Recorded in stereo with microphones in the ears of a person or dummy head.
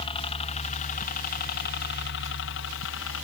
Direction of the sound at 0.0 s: 30° left (ahead or behind).